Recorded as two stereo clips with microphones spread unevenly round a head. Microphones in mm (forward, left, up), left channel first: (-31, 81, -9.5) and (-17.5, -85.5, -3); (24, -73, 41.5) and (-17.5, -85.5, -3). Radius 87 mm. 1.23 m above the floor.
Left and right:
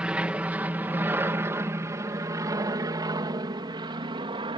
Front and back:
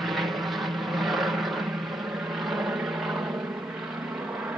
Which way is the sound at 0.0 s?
165° right.